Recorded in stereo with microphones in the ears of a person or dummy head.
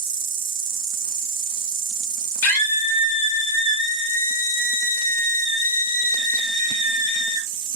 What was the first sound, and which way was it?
An insect, 45° right (ahead or behind).